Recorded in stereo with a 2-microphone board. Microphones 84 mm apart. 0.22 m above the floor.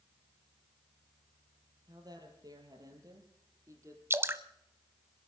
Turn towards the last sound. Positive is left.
turn(degrees=-30)  # may be behind; listen again after turning